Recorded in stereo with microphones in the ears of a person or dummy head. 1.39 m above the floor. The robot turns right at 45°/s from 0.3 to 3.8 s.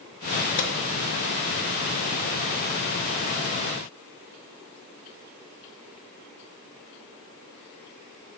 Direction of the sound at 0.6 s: 50° left (ahead or behind).